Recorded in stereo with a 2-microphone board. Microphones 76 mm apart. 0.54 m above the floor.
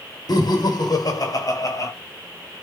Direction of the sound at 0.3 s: 60° left (ahead or behind).